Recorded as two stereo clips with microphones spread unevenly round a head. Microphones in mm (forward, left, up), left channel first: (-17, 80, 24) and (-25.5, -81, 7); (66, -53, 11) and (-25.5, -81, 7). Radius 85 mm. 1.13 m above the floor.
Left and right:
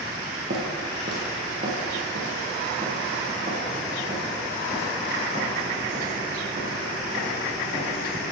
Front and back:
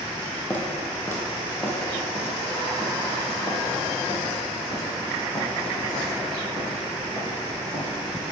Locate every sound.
0.5 s footsteps: 50° right, 2 m; by 8.3 s 30° right, 6 m